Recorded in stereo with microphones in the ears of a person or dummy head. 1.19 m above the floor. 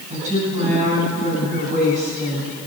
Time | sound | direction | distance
0.1 | a woman speaking | 40° right (ahead or behind) | 6.5 m